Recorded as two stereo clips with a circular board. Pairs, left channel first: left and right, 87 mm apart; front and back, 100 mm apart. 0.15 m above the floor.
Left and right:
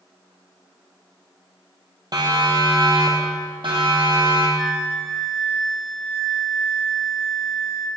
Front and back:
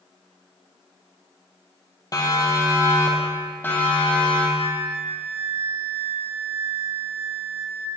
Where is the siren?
50° right, 3.5 m; by 4.5 s 75° right, 5 m.